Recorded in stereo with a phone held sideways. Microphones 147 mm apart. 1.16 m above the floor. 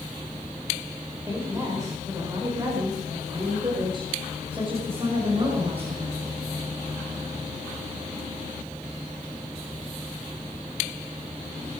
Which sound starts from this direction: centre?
A woman speaking, at 1.3 s.